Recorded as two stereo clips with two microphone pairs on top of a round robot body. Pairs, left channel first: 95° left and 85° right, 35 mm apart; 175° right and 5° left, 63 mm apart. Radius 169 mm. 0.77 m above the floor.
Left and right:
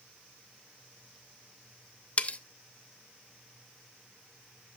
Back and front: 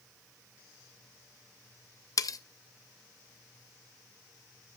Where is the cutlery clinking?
150° left, 0.7 m.